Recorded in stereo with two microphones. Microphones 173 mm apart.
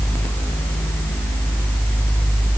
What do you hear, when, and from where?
Only background noise.